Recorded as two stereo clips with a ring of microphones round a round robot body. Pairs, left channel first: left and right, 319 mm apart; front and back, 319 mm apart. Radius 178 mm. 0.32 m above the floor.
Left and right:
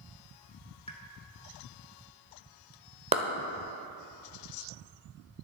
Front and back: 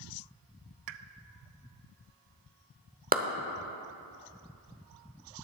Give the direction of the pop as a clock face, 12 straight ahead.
6 o'clock.